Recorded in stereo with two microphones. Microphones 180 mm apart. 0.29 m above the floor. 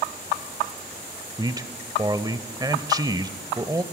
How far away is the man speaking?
About 0.9 m.